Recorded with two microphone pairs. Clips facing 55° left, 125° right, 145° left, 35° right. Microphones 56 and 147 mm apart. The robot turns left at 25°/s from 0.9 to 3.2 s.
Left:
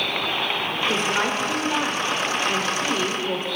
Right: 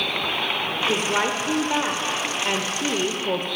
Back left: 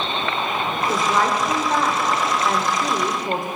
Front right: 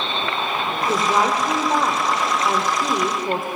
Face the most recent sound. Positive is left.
turn(degrees=-120)